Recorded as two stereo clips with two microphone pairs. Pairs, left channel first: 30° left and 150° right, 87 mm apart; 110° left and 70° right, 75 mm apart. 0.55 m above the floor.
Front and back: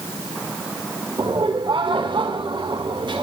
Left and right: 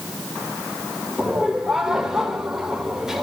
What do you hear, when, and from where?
1.2 s laughter: 155° right, 1.9 m